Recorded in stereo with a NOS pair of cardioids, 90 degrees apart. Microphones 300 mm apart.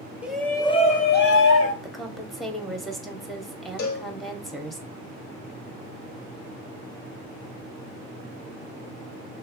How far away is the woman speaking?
About 0.9 m.